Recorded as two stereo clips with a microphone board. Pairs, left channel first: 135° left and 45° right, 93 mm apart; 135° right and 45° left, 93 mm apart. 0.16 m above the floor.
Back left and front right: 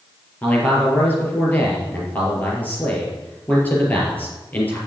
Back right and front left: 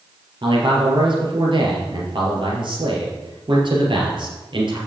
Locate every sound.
0.4 s a man speaking: 65° left, 4 m